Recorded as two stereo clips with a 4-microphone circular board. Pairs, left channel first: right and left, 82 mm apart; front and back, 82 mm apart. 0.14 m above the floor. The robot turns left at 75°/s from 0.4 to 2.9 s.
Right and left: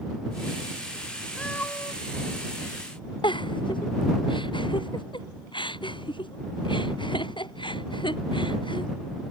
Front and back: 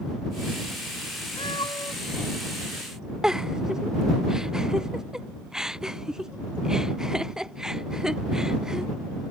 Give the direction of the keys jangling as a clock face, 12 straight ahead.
No keys jangling in this recording.